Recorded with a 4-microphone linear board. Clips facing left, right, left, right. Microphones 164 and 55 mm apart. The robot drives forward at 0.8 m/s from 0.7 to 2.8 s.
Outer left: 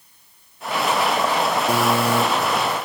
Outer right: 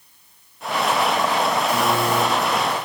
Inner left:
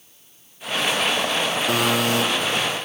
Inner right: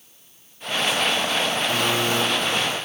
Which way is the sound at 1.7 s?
75° left (ahead or behind).